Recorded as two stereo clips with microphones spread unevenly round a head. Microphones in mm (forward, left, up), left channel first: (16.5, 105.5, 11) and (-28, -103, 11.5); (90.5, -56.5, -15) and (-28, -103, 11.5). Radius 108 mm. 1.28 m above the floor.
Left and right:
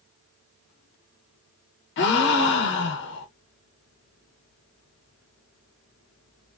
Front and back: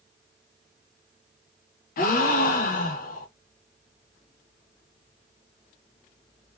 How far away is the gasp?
About 0.6 m.